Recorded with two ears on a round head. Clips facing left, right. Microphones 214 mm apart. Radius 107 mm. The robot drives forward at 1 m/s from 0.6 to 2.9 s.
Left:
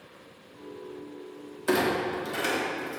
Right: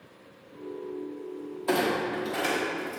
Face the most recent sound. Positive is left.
turn(degrees=15)  # may be behind; listen again after turning